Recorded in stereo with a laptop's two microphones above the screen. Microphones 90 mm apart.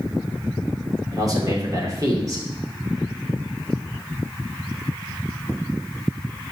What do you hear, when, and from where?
1.1 s a man speaking: 40° right (ahead or behind), 2 m